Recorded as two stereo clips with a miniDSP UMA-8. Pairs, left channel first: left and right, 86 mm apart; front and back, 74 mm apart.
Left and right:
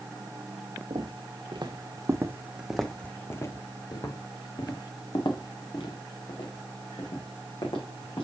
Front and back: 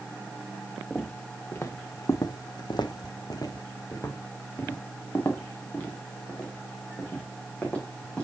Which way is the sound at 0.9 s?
70° right.